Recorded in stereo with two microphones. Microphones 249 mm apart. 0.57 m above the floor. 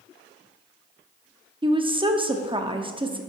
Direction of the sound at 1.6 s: 20° right (ahead or behind).